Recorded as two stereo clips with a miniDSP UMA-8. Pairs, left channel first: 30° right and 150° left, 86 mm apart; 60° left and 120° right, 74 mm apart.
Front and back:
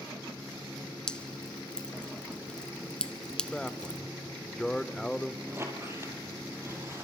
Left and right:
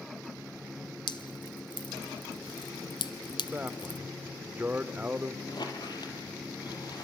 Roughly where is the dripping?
Ahead left.